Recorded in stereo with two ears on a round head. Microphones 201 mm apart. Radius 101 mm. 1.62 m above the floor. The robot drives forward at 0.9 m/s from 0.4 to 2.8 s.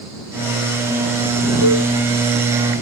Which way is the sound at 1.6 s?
90° right.